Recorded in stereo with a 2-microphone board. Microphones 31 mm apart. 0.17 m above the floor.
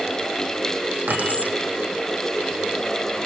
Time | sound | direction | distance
1.1 | keys jangling | 80° right | 6.5 m